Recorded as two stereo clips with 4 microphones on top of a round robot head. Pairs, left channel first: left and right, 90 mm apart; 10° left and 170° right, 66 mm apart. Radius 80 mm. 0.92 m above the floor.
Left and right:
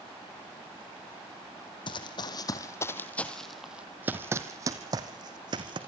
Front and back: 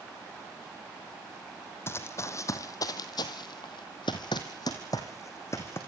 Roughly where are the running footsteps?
Ahead left.